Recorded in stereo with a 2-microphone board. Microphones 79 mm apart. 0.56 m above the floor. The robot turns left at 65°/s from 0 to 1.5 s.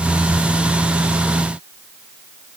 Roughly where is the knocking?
No knocking in this recording.